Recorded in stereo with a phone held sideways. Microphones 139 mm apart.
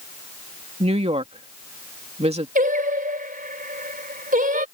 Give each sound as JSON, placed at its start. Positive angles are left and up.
{"t": 0.8, "sound": "a woman speaking", "side_deg": -50}
{"t": 2.5, "sound": "singing", "side_deg": -80}